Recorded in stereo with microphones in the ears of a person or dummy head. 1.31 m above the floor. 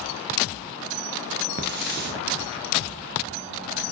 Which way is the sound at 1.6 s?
45° right (ahead or behind).